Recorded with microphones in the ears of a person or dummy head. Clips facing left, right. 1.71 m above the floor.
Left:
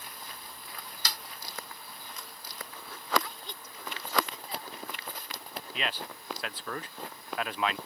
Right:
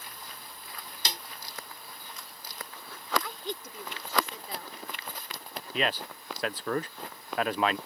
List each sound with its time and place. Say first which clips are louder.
1.1 s a snare drum: right 3 dB; 20° right (ahead or behind)
3.2 s a woman speaking: right 8 dB; 55° right (ahead or behind)
5.7 s a man speaking: right 7 dB; 40° right (ahead or behind)